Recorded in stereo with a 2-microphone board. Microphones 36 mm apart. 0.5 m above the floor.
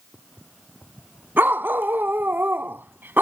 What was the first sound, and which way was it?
A dog barking, 75° right (ahead or behind).